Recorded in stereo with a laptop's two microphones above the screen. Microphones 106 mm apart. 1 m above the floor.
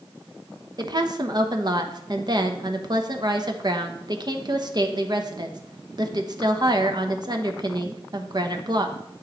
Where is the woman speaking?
45° right (ahead or behind), 0.9 m.